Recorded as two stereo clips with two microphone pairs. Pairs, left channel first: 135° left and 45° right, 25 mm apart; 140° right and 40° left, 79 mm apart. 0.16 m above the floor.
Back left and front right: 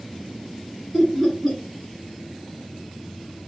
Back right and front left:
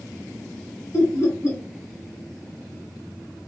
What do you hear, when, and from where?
0.9 s laughter: 140° right, 1.3 m